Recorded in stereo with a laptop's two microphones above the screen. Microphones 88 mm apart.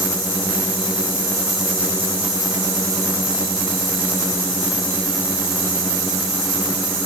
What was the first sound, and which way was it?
Only background noise.